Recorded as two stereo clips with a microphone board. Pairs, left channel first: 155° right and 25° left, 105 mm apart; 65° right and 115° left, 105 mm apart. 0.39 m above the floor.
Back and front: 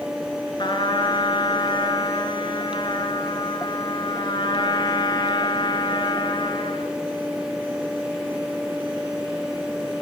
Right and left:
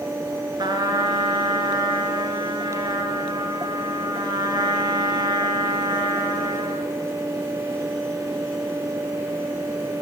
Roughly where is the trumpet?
Behind.